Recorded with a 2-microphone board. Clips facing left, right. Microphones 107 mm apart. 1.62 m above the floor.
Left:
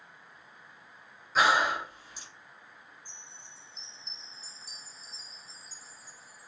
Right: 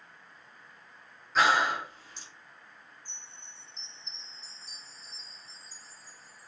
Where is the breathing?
5° left (ahead or behind), 0.8 m.